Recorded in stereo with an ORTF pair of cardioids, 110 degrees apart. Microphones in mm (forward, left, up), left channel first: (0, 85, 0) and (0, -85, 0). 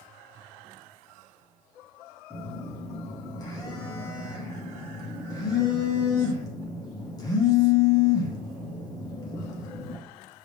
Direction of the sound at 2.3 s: 20° left.